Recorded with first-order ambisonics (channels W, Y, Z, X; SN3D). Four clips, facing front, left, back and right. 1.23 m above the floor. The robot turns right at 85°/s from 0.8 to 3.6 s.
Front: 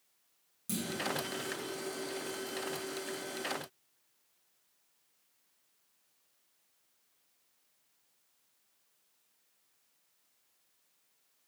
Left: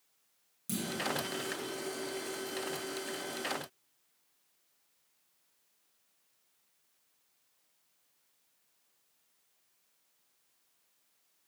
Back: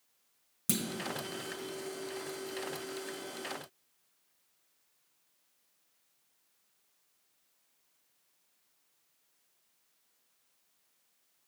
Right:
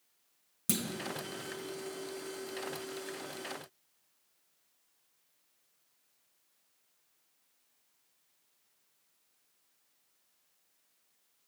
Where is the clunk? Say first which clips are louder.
Right 3 dB, back 3 dB; 135° right, 0.8 m; by 0.8 s 130° right, 0.8 m.